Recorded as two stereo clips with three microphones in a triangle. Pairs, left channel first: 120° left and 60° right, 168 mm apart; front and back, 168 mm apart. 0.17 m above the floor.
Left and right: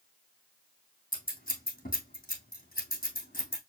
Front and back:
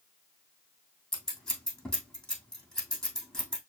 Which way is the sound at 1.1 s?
85° left.